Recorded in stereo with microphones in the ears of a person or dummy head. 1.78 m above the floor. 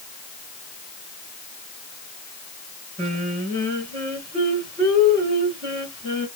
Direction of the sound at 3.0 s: 40° right (ahead or behind).